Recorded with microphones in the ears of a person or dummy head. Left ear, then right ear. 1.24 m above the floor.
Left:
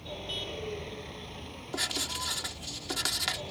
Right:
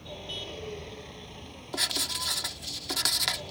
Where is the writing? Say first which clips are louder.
Right 3 dB; 20° right (ahead or behind).